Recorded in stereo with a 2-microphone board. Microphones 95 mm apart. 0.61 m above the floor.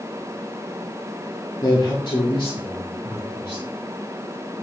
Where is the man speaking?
45° left (ahead or behind), 1.3 m; by 3.6 s 55° left (ahead or behind), 3 m.